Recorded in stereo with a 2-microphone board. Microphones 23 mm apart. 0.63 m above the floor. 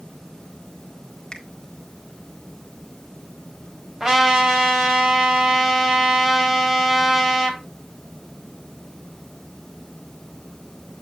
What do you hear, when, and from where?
1.3 s a finger snap: 25° left (ahead or behind), 1.8 m
4.0 s a trumpet: 30° right (ahead or behind), 3.5 m